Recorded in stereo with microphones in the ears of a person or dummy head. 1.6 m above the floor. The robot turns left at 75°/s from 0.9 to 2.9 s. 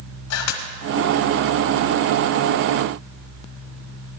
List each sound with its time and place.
0.3 s a camera shutter: 85° left, 1.4 m